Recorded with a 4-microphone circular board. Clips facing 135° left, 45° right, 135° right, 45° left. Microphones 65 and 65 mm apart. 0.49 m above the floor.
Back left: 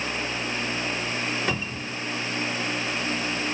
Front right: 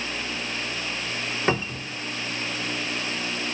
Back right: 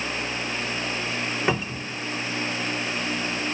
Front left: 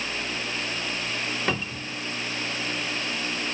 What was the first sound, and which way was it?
A cupboard door, 75° right.